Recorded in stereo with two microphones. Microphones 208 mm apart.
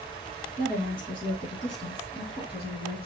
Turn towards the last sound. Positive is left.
turn(degrees=30)  # may be behind; listen again after turning